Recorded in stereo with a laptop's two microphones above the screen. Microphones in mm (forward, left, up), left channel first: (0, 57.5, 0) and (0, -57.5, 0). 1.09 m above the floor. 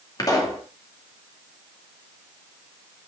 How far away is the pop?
About 2.5 m.